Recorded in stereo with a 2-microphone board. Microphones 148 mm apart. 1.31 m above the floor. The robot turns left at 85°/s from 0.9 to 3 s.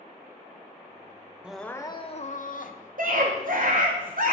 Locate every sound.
1.4 s crying: 170° right, 0.6 m; by 4.0 s 55° left, 0.6 m
3.0 s a scream: 70° right (ahead or behind), 0.9 m